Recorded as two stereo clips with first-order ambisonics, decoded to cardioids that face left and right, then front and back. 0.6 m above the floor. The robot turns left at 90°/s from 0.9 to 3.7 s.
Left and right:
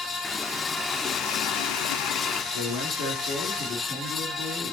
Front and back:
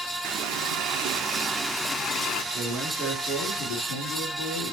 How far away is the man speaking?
About 4.5 m.